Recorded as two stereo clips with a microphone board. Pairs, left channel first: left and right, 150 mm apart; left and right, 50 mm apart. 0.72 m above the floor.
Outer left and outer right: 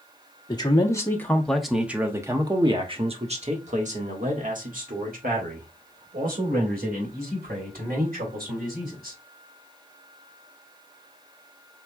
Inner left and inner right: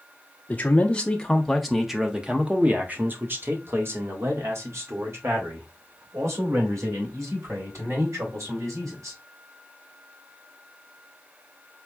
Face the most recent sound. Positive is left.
turn(degrees=-80)